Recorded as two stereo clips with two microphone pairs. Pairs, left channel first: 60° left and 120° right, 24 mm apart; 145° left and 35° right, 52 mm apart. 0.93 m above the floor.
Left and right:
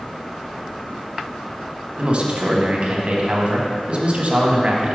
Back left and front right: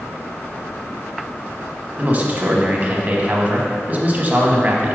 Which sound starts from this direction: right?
A man speaking, at 2.0 s.